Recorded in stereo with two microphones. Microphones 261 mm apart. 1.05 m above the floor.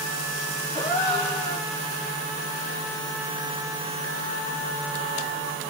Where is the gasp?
15° left (ahead or behind), 3 m.